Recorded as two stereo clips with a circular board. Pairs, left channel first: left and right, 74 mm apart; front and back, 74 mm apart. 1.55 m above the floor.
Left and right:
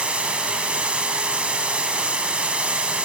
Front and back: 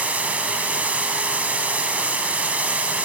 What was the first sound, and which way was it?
Running water, 145° right.